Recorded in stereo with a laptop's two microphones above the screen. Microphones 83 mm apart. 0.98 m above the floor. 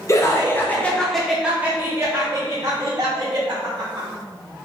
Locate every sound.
0.1 s laughter: 35° left (ahead or behind), 0.9 m; by 4.1 s 65° right (ahead or behind), 1.6 m